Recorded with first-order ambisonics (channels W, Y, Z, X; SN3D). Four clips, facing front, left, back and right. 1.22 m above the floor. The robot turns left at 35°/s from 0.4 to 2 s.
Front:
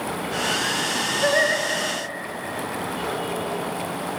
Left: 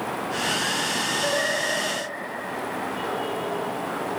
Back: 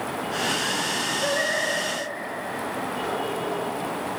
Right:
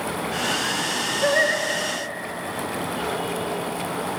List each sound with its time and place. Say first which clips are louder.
1.2 s singing: right 8 dB, front 6 dB; 10° right, 3 m; by 1.6 s 25° right, 3 m